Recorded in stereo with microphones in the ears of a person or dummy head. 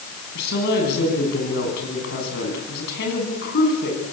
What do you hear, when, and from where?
0.3 s a woman speaking: 60° left (ahead or behind), 9.5 m